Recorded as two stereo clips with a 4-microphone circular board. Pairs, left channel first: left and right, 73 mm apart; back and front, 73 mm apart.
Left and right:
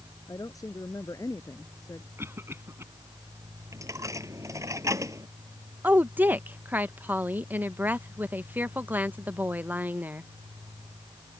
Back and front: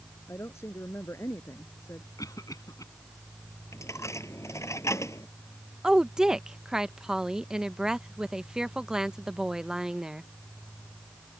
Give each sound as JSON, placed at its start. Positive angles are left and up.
{"t": 0.3, "sound": "a woman speaking", "azimuth_deg": 125}
{"t": 2.2, "sound": "a cough", "azimuth_deg": -145}
{"t": 3.7, "sound": "a dropped coin", "azimuth_deg": -130}
{"t": 5.8, "sound": "a woman speaking", "azimuth_deg": -70}